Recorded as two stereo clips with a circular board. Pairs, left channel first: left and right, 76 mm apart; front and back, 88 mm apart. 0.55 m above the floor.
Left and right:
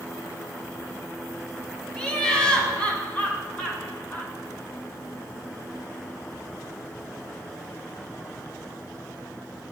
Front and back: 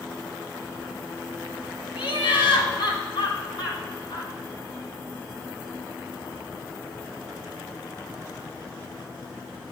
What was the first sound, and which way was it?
Laughter, 10° left.